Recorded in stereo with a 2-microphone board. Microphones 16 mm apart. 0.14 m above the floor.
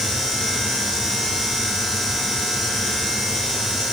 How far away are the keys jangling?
No keys jangling in this recording.